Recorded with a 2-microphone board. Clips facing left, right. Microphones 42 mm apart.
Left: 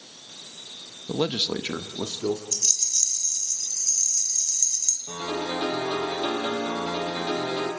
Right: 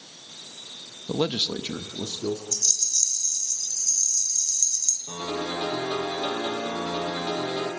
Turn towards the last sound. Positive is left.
turn(degrees=15)  # may be behind; listen again after turning